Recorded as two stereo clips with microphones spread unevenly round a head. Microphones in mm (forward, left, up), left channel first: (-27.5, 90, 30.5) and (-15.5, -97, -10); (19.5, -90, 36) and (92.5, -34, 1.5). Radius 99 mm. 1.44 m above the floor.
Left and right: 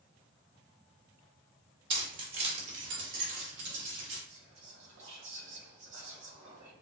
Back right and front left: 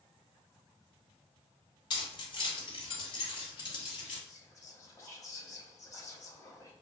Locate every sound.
1.9 s keys jangling: 155° right, 1.0 m; by 4.2 s 110° right, 3.5 m
4.3 s whispering: 80° right, 1.7 m